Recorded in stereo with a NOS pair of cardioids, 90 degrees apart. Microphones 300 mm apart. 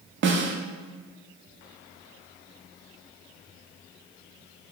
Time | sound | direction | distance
0.2 | a snare drum | 45° right | 0.5 m